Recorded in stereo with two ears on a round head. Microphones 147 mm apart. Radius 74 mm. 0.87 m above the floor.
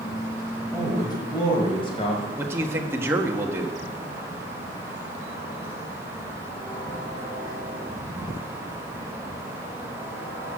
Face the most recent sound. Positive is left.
turn(degrees=-15)  # may be behind; listen again after turning